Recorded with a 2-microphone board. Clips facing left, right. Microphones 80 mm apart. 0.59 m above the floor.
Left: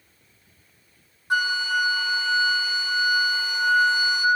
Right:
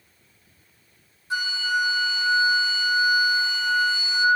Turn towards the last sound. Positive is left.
turn(degrees=60)  # may be behind; listen again after turning